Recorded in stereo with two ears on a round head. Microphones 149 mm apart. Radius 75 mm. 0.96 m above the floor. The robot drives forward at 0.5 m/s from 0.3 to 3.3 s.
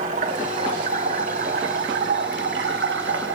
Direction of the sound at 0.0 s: 45° right (ahead or behind).